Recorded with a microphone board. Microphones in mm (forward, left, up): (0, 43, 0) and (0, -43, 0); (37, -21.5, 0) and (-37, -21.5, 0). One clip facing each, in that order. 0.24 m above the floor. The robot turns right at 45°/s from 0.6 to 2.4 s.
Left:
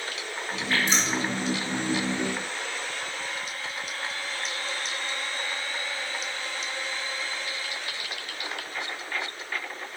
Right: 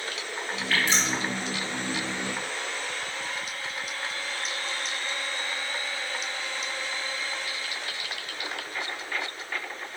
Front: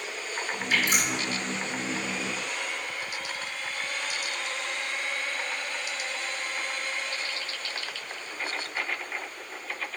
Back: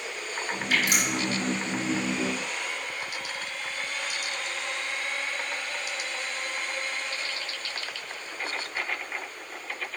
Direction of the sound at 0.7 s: 155° left.